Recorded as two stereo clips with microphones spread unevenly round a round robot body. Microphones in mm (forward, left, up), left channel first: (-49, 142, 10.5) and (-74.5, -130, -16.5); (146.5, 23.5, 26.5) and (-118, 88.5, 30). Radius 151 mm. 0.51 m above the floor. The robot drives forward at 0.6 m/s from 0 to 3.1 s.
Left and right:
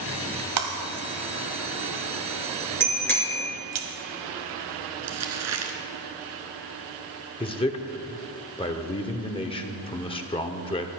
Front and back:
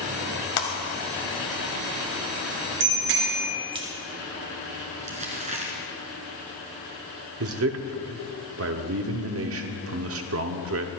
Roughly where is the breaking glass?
Ahead right.